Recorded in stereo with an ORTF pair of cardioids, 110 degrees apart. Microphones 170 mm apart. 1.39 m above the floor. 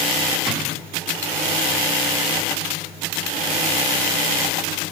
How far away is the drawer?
About 1.9 m.